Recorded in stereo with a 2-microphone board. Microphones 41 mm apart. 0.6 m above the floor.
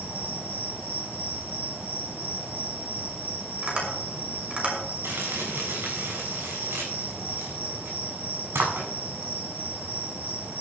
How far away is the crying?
No crying in this recording.